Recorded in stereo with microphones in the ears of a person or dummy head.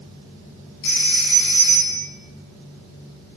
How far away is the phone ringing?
About 8 m.